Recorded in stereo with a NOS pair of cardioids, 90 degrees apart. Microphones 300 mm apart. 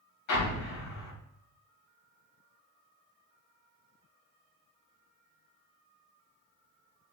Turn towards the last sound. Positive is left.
turn(degrees=65)